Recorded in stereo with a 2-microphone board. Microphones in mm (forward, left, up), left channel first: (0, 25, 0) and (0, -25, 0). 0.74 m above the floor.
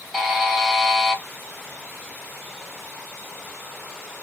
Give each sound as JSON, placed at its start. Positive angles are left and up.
{"t": 0.1, "sound": "a buzzer", "side_deg": -10, "distance_m": 1.0}